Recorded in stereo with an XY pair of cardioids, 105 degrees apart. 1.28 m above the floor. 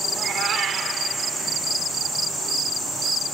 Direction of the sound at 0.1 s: 60° right.